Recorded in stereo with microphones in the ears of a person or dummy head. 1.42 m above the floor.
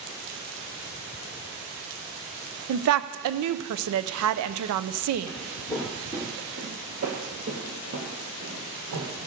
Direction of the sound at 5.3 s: 10° left (ahead or behind).